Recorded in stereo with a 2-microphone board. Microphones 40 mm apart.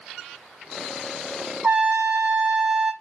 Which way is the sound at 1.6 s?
35° right (ahead or behind).